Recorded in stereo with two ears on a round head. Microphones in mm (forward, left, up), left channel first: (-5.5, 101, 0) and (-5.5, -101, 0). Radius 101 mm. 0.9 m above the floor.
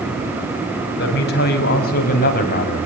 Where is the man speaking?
50° left (ahead or behind), 7 m; by 2.9 s 35° left (ahead or behind), 6.5 m.